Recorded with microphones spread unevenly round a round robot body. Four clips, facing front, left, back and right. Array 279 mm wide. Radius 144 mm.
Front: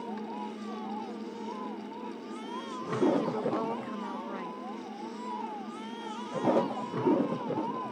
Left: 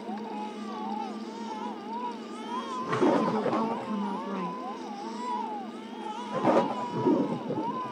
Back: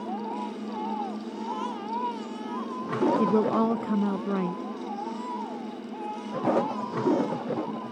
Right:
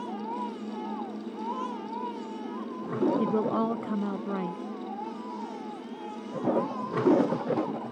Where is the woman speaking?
175° right.